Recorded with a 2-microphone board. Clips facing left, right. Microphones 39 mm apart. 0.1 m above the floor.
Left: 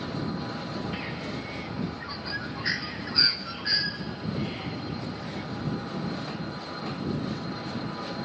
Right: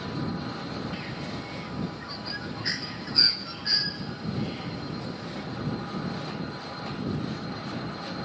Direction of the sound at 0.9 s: 15° left (ahead or behind).